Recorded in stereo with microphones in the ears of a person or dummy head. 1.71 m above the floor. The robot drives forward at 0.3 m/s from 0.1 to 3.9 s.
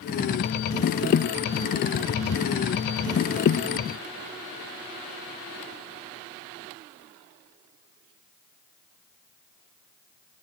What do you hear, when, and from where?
Only background noise.